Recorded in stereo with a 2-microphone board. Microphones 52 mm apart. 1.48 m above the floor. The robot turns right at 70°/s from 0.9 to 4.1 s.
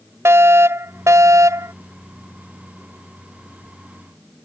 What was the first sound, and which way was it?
A fire alarm, 120° right.